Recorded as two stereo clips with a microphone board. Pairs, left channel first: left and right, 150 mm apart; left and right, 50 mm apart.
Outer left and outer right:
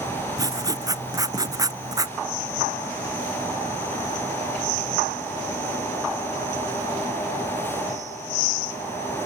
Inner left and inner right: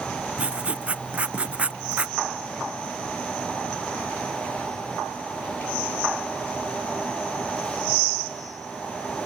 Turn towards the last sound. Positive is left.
turn(degrees=-25)  # may be behind; listen again after turning